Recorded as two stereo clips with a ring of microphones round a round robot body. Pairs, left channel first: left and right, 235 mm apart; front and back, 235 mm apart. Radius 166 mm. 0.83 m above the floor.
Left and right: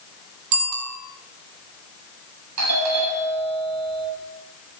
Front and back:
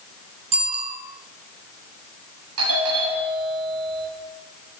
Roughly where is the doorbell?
Behind right.